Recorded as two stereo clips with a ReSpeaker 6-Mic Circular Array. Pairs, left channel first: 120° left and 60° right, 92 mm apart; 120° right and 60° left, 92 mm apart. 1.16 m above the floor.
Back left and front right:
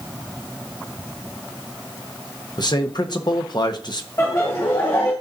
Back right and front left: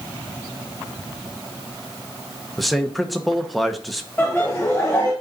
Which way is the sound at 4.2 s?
175° left.